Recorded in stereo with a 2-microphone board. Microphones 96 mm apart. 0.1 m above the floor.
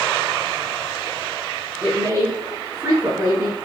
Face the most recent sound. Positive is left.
turn(degrees=-25)  # may be behind; listen again after turning